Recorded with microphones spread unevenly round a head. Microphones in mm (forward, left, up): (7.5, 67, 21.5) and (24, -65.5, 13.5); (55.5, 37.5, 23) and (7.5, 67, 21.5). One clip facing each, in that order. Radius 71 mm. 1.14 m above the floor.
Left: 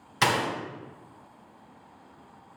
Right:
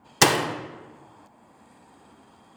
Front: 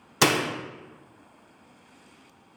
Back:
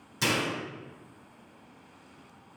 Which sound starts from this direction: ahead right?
A door slam, at 0.2 s.